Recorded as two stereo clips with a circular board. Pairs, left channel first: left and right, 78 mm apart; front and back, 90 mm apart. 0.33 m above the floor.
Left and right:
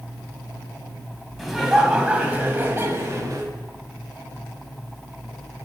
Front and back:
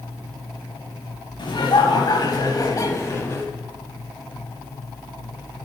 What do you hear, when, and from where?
1.4 s laughter: straight ahead, 1.8 m; by 3.5 s 60° right, 1.8 m